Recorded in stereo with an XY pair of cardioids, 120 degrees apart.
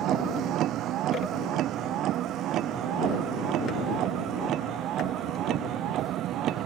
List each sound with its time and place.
0.0 s a vehicle: 65° right